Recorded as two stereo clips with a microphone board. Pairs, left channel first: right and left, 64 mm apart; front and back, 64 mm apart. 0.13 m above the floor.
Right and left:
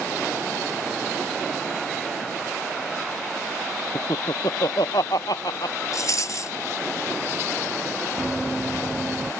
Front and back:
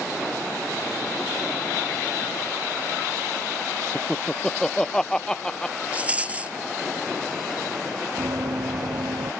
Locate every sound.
4.0 s laughter: 80° right
5.9 s a rattle: 110° right
8.2 s running footsteps: 170° left; by 9.3 s 175° left